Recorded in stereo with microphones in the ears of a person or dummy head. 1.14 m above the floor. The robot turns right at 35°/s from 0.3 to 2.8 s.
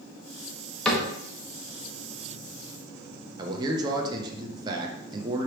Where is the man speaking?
30° right (ahead or behind), 0.6 m.